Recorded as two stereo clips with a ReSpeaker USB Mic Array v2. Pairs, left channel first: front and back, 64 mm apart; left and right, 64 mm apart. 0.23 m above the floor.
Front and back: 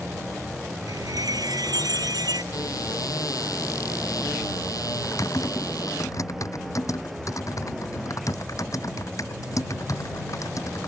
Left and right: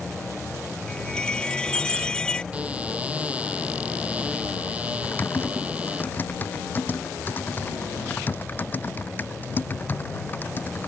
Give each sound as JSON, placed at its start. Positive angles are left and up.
{"t": 0.9, "sound": "a chime", "azimuth_deg": 165}
{"t": 2.5, "sound": "a cupboard door", "azimuth_deg": -20}
{"t": 5.0, "sound": "typing on a keyboard", "azimuth_deg": 30}